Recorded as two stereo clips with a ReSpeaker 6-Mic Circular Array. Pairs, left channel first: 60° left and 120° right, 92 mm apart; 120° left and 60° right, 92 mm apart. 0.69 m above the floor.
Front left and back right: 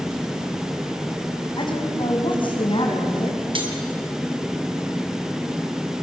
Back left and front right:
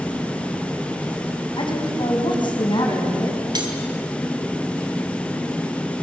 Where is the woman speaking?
90° left, 5 m; by 3.4 s 85° left, 5.5 m.